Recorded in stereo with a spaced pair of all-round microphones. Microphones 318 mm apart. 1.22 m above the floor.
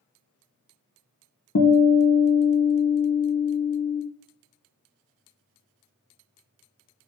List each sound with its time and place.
1.6 s a guitar: 55° left (ahead or behind), 0.7 m